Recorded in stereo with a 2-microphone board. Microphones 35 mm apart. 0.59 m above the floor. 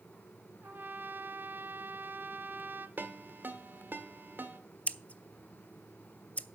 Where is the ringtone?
60° right (ahead or behind), 1.6 m.